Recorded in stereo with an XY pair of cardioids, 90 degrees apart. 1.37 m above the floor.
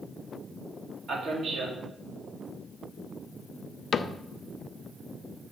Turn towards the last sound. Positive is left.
turn(degrees=55)